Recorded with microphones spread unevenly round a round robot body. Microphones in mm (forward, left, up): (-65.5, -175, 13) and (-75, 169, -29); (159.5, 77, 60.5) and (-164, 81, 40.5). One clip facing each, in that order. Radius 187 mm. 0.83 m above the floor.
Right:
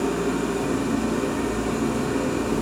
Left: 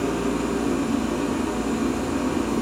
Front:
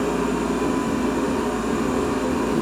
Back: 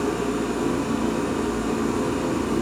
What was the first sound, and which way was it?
An engine running, 110° right.